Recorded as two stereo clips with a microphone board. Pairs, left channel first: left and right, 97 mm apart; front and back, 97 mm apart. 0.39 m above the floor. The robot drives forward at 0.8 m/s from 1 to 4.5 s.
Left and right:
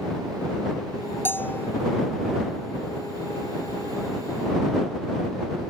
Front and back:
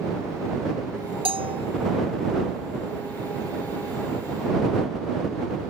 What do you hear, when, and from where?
1.2 s a bell: 160° left